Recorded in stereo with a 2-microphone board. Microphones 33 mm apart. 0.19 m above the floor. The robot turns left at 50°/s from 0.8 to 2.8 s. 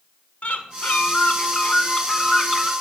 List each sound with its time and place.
0.4 s a bird: 90° left, 0.6 m; by 2.7 s 5° right, 0.6 m